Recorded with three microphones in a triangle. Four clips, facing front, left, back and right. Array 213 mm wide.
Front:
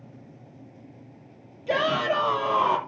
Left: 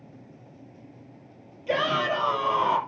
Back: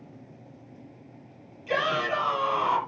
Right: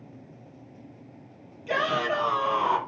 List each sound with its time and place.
1.7 s a shout: 25° left, 6 m; by 2.8 s 30° left, 5.5 m